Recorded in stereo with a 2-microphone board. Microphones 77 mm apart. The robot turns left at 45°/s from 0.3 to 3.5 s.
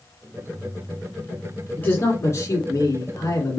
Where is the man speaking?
150° left, 2.0 m; by 3.6 s 70° left, 2.0 m.